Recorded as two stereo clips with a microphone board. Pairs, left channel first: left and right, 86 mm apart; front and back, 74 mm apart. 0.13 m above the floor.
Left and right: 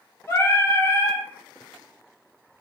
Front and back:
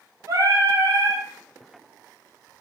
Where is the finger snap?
I don't hear a finger snap.